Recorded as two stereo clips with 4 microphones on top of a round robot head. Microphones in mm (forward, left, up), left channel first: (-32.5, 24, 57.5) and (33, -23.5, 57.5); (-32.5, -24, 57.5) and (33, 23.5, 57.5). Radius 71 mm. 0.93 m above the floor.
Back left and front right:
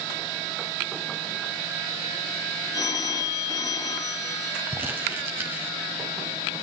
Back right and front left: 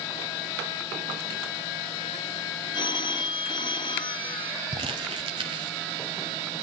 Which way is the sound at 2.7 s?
170° right.